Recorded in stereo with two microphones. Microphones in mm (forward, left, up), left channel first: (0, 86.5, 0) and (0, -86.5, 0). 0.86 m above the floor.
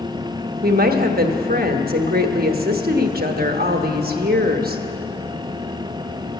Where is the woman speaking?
60° right (ahead or behind), 1.1 m.